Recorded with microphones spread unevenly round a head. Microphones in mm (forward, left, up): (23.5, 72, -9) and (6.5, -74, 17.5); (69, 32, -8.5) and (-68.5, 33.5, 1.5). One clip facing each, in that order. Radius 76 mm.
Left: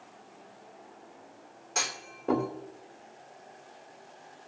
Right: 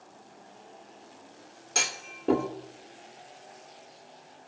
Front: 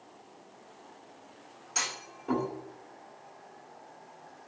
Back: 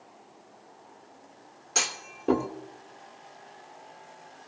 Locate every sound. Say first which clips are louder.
1.8 s a clunk: right 1 dB, back 4 dB; 145° right, 2 m